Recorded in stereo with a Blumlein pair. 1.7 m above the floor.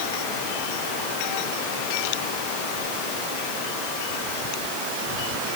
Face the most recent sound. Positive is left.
No sound to turn to.